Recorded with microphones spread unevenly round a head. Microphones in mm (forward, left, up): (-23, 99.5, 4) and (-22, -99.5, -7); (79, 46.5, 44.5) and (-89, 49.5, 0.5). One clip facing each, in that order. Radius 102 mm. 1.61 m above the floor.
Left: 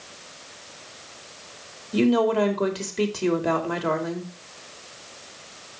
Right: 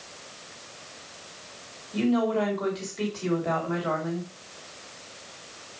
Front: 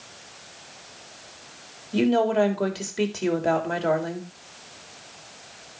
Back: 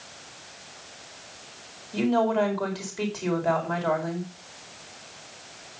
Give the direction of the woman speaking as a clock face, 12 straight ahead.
10 o'clock.